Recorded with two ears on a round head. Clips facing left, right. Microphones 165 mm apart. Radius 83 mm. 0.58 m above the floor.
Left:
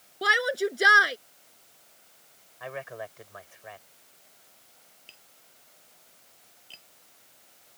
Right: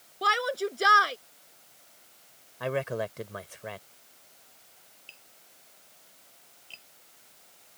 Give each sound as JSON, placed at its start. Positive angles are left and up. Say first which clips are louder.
{"t": 0.2, "sound": "a shout", "louder": "left 2 dB", "side_deg": 20}
{"t": 2.6, "sound": "a man speaking", "louder": "right 8 dB", "side_deg": -70}
{"t": 5.1, "sound": "tapping", "louder": "right 1 dB", "side_deg": 10}